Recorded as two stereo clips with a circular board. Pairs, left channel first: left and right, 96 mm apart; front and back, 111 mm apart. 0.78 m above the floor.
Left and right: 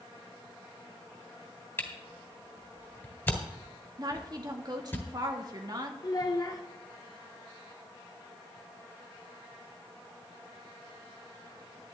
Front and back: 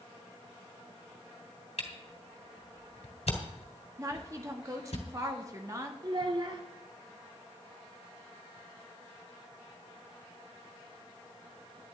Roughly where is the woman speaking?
Behind right.